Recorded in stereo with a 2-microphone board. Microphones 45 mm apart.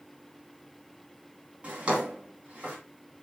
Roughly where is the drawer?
Right.